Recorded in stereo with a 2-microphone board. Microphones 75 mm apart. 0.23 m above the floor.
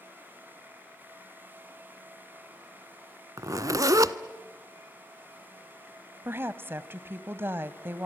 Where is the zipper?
50° right (ahead or behind), 0.7 m.